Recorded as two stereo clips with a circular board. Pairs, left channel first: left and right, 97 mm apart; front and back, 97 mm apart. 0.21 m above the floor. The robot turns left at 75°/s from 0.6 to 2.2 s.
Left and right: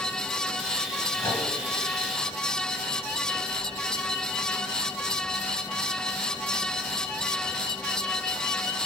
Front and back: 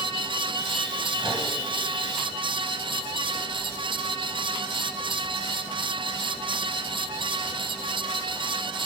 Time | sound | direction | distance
1.2 | a microwave | 145° left | 2.5 m